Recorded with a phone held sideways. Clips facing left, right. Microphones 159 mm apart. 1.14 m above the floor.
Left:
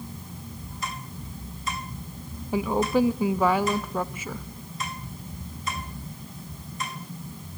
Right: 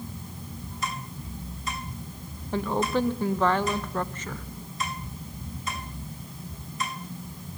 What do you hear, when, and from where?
2.5 s a woman speaking: 10° left (ahead or behind), 0.7 m